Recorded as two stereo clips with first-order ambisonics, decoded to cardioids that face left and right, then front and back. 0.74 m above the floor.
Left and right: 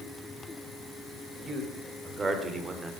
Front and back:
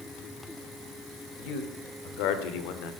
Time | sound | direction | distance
1.4 | a man speaking | 15° right | 2.5 m